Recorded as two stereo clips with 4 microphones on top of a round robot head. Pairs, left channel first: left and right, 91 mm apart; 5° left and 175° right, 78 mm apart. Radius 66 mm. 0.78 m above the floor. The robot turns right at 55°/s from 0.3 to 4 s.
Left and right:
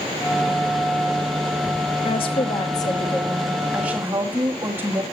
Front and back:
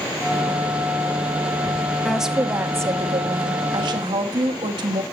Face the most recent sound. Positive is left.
turn(degrees=-160)